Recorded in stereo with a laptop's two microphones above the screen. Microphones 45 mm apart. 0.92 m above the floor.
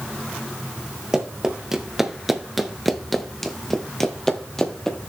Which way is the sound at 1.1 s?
10° right (ahead or behind).